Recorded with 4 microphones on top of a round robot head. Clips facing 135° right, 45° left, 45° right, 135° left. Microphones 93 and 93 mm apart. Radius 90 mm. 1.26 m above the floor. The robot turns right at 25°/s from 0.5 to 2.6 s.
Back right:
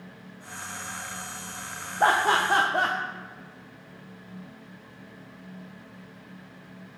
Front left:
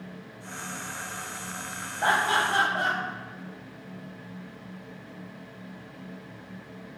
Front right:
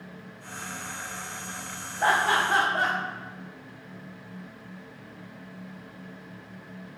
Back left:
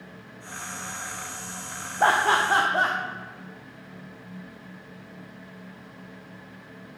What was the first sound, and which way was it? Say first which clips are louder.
Laughter: back right 3 dB, back left 3 dB; 175° right.